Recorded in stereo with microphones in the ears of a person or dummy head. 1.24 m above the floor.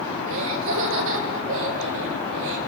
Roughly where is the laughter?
Right.